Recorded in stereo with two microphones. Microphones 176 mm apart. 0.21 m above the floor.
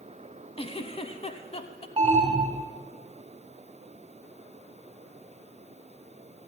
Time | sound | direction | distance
0.6 | a giggle | 35° left (ahead or behind) | 0.9 m
2.0 | an alarm | 30° right (ahead or behind) | 1.4 m